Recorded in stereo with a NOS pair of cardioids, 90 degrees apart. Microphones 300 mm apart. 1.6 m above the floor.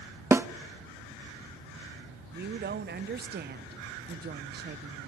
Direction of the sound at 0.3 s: 10° right.